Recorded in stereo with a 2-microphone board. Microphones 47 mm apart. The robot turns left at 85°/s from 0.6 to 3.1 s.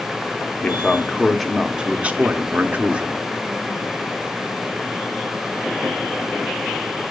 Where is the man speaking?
65° left, 0.8 m; by 3.2 s 145° right, 0.8 m.